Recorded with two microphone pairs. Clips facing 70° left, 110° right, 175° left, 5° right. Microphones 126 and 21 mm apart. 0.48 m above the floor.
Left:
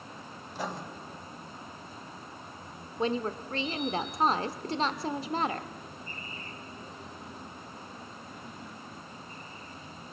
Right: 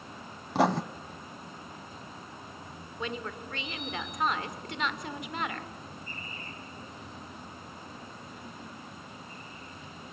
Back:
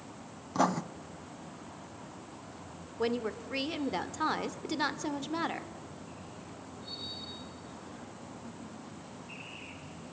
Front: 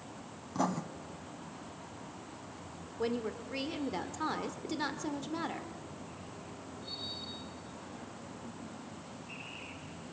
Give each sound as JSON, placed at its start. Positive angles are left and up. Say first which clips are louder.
{"t": 0.6, "sound": "writing", "louder": "right 12 dB, back 5 dB", "azimuth_deg": -125, "distance_m": 0.7}
{"t": 3.0, "sound": "a woman speaking", "louder": "left 7 dB, back 3 dB", "azimuth_deg": 115, "distance_m": 1.4}